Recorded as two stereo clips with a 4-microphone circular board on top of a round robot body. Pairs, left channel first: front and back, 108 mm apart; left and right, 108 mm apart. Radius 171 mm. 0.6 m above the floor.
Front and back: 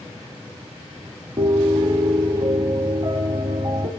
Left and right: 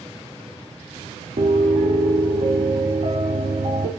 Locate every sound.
1.4 s a piano: 125° right, 0.7 m